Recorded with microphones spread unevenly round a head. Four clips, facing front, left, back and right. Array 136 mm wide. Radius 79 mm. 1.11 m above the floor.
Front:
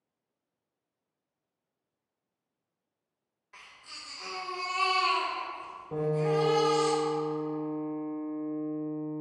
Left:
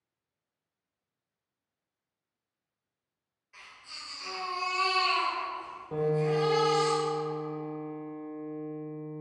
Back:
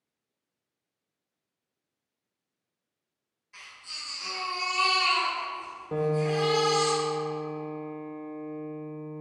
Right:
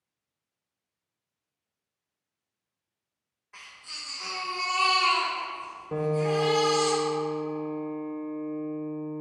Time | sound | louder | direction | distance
3.5 | a baby crying | right 2 dB, back 3 dB | 45° right | 1.9 m
5.9 | a piano | right 1 dB, back 1 dB | 130° right | 0.6 m